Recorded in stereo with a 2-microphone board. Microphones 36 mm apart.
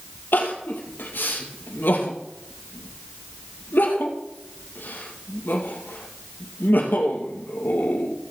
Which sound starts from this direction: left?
Crying, at 0.3 s.